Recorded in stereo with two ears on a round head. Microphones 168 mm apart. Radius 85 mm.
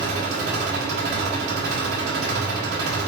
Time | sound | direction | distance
0.0 | an engine running | 65° right (ahead or behind) | 5 m